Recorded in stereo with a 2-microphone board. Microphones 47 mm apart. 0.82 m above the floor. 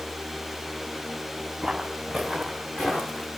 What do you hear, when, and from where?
1.6 s footsteps: 5° right (ahead or behind), 5 m; by 3.3 s 20° left (ahead or behind), 5.5 m